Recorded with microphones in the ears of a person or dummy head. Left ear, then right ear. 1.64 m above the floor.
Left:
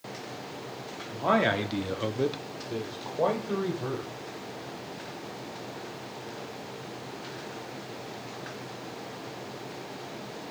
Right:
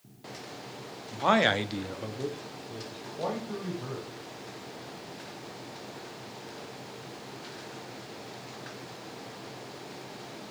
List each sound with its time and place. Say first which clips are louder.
1.1 s a man speaking: right 1 dB; 40° right (ahead or behind), 0.9 m; by 4.1 s 85° left, 2.0 m